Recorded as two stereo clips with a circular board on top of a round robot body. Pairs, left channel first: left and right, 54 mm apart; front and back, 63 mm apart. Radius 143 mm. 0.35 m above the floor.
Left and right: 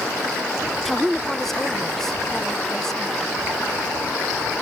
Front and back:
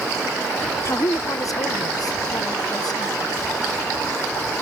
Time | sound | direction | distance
0.8 | a woman speaking | straight ahead | ?